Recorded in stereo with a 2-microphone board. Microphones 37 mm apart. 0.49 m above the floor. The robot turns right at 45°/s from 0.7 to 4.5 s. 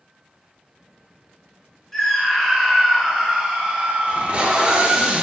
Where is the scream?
10° left (ahead or behind), 0.8 m; by 5.1 s 25° right (ahead or behind), 0.8 m.